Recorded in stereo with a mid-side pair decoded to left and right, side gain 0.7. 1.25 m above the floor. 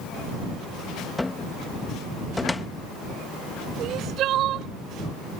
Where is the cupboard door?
10° left.